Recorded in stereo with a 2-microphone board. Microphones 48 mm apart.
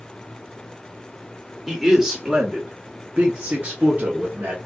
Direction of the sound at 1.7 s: 5° right (ahead or behind).